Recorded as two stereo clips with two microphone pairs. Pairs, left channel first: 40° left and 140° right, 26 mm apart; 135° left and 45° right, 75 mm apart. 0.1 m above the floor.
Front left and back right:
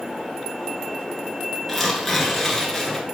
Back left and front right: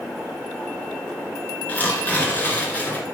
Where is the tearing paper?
115° left, 1.5 m.